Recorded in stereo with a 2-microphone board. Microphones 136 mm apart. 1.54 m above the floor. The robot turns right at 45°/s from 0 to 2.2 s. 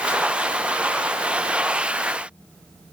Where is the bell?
I don't hear a bell.